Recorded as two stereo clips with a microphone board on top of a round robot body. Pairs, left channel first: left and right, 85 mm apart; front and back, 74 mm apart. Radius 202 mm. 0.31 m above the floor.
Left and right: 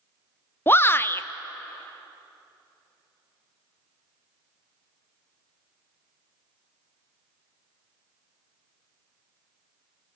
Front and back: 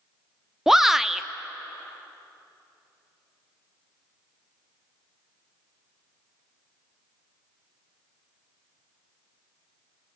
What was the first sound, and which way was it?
A shout, 100° left.